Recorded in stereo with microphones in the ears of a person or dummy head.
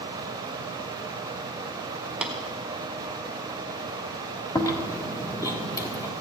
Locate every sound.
2.2 s tapping: 5° right (ahead or behind), 1.3 m
4.5 s chewing: 25° left (ahead or behind), 1.7 m